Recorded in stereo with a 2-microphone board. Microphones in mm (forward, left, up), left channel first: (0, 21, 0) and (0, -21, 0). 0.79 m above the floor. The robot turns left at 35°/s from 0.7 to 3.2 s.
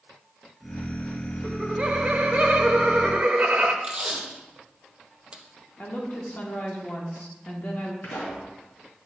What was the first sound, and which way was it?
Laughter, 45° right.